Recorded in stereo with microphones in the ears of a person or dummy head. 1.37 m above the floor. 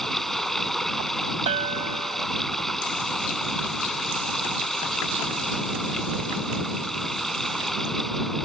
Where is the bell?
40° right (ahead or behind).